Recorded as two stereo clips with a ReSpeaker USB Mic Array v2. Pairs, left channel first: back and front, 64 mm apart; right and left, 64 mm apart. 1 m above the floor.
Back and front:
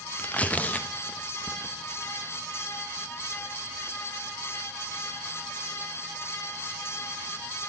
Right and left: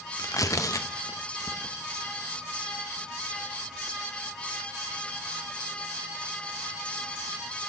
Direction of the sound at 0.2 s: 115° right.